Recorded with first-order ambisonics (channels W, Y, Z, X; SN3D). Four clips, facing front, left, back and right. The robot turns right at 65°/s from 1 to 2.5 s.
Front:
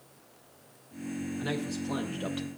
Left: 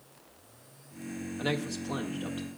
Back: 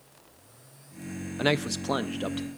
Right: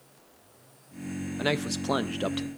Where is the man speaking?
160° right, 0.5 m; by 2.5 s 90° right, 0.5 m.